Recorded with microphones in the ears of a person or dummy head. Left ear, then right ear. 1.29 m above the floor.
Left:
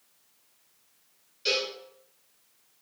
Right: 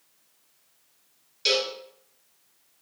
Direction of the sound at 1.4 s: 30° right (ahead or behind).